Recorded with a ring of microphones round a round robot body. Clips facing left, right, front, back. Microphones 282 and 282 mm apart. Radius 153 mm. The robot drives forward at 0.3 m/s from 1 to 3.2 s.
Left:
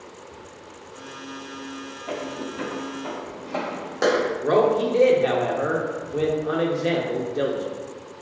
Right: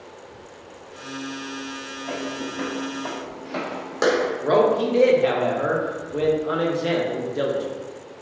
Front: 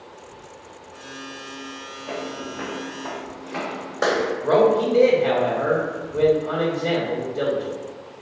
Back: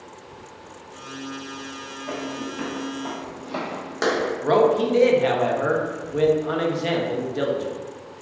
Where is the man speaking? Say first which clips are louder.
Even, front 1 dB; straight behind, 0.5 m.